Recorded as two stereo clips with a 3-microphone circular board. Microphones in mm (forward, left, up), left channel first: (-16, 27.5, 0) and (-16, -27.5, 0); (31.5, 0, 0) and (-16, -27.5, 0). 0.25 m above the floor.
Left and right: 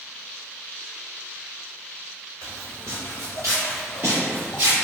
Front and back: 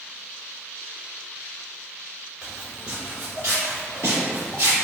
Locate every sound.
2.4 s footsteps: 80° right, 1.2 m; by 4.8 s 130° right, 2.5 m